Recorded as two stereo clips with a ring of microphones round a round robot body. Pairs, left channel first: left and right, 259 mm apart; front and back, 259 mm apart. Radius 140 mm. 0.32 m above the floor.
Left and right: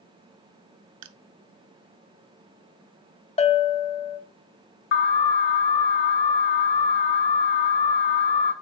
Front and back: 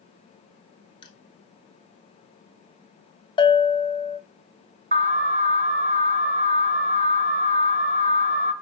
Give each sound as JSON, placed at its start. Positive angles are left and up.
{"t": 1.0, "sound": "crushing", "azimuth_deg": -75, "distance_m": 0.7}
{"t": 3.4, "sound": "a bell", "azimuth_deg": 50, "distance_m": 0.7}
{"t": 4.9, "sound": "an alarm", "azimuth_deg": 125, "distance_m": 1.4}